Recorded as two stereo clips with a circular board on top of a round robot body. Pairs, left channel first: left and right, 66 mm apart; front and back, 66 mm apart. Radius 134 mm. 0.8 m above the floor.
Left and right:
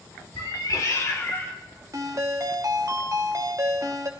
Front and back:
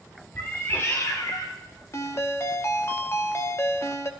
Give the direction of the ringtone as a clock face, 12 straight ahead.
2 o'clock.